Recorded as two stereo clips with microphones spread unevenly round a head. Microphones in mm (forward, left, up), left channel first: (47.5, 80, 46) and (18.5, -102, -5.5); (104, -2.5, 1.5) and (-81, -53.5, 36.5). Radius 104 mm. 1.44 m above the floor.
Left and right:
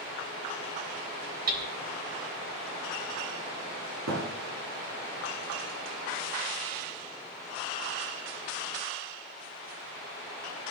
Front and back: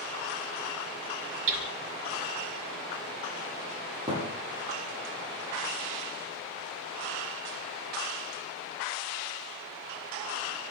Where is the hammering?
150° right, 3.5 m.